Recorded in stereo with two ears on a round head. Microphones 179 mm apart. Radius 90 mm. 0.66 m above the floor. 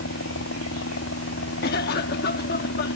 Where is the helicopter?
65° left (ahead or behind); by 3.0 s 70° left (ahead or behind).